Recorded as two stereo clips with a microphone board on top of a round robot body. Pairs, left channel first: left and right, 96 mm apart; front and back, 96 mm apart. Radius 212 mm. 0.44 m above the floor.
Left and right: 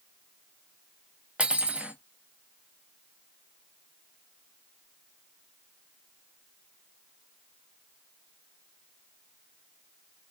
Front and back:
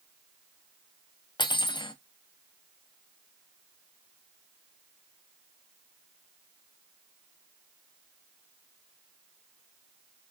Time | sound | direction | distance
1.4 | cutlery clinking | 15° right | 0.6 m